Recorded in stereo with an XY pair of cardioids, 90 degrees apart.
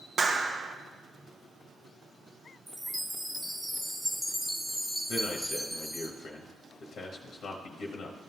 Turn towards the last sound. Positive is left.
turn(degrees=70)